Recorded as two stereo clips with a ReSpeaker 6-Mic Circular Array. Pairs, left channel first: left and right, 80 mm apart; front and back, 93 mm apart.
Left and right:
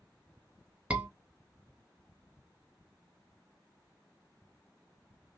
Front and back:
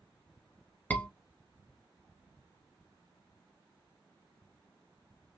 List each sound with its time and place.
0.9 s a scream: 40° right, 1.2 m